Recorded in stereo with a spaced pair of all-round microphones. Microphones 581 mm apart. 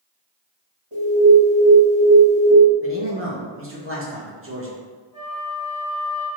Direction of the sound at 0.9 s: 45° right (ahead or behind).